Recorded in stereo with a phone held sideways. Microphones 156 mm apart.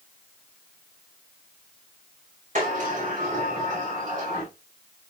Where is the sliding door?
55° right (ahead or behind), 5.5 m.